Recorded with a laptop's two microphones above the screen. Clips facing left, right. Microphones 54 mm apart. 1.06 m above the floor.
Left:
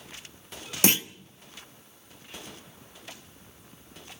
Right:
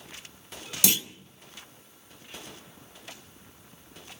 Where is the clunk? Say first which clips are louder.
Left 4 dB; 40° left (ahead or behind), 1.2 m.